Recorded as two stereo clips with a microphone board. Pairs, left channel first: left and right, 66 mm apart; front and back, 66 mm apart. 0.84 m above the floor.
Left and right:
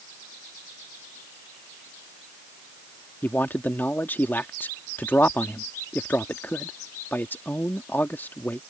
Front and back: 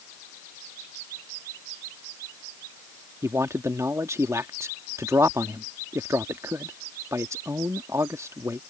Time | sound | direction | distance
3.2 | a man speaking | 145° left | ?